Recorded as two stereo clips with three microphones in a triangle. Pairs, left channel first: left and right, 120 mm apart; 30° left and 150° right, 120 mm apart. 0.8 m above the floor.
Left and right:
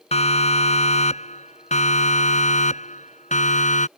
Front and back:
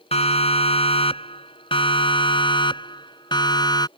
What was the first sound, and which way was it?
A siren, 65° left.